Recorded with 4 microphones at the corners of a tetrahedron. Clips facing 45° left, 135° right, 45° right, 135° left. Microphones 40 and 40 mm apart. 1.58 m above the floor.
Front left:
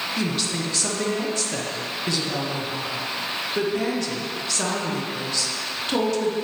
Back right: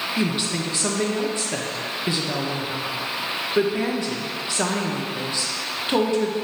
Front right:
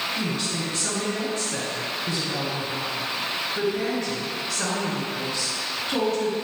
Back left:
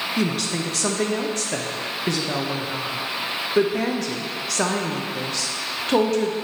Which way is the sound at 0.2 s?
150° left.